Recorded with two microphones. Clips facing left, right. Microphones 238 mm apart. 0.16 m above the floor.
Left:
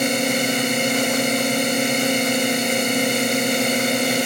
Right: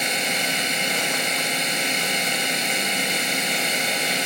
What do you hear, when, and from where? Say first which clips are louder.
0.0 s a drone: left 9 dB; 50° left (ahead or behind)